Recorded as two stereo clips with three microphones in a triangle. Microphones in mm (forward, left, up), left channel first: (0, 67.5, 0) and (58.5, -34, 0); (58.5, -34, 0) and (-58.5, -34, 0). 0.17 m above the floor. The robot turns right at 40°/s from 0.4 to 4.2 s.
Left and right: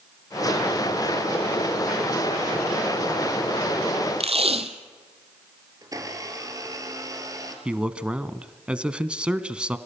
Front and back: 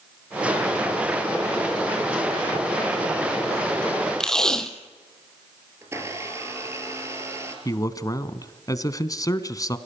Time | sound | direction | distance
4.2 | tape being pulled | 85° right | 1.4 m
5.8 | a blender | 115° right | 3.5 m
7.7 | a man speaking | 15° left | 1.1 m